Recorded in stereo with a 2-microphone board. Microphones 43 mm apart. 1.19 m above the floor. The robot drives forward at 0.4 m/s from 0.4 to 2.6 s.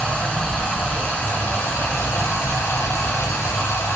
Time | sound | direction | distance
0.0 | running water | 30° left (ahead or behind) | 1.0 m